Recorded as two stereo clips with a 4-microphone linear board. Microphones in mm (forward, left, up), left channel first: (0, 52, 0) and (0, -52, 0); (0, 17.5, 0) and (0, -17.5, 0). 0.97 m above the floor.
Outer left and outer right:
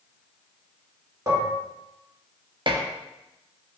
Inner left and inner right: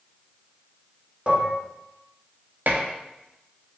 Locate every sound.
1.3 s dishes clattering: 30° right (ahead or behind), 0.9 m
2.7 s dishes clattering: 50° right (ahead or behind), 0.7 m